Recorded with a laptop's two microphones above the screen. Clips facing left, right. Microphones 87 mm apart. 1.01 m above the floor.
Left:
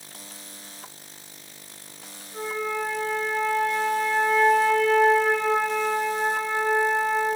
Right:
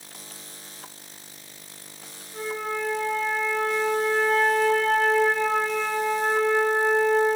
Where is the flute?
10° left (ahead or behind), 3.5 m.